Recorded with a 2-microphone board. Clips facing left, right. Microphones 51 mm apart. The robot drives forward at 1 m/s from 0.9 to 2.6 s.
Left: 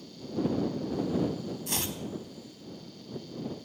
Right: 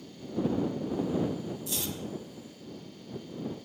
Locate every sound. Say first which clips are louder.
1.7 s chopping: left 1 dB; 60° left (ahead or behind), 1.1 m; by 2.0 s 55° left (ahead or behind), 1.1 m